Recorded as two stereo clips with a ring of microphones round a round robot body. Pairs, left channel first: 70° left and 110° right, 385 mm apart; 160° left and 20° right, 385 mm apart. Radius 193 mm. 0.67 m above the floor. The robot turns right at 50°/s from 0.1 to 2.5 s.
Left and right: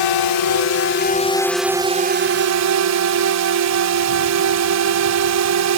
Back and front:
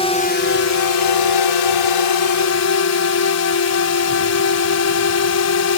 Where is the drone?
85° left; by 5.8 s 155° right.